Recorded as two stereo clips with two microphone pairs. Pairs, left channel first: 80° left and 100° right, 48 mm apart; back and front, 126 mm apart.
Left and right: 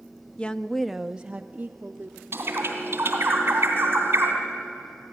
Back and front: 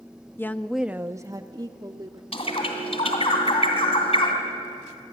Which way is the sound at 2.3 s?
140° right.